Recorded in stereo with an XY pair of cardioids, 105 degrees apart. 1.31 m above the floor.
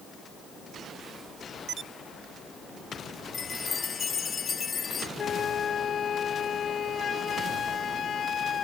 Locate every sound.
3.3 s a chime: 45° left
5.2 s a flute: 50° left